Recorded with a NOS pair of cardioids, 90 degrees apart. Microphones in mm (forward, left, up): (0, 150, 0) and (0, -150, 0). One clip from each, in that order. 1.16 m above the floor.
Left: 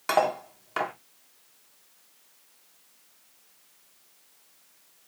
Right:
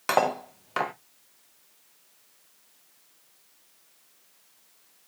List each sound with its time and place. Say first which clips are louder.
0.1 s cutlery clinking: even; 15° right, 0.6 m